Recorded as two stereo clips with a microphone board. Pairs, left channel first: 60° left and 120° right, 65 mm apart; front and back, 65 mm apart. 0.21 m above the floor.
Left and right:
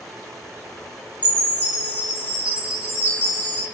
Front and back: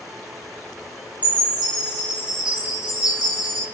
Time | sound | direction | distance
1.2 | a chime | 115° left | 1.0 m